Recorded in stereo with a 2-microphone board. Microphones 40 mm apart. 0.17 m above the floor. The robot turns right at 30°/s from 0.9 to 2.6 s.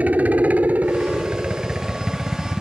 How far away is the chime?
I don't hear a chime.